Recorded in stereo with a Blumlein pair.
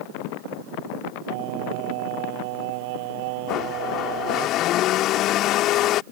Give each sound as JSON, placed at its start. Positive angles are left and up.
{"t": 1.3, "sound": "singing", "azimuth_deg": -45}
{"t": 3.5, "sound": "a blender", "azimuth_deg": 35}